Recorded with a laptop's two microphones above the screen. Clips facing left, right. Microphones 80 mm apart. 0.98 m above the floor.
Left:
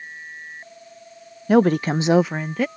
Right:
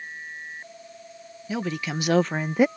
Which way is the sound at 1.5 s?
55° left (ahead or behind).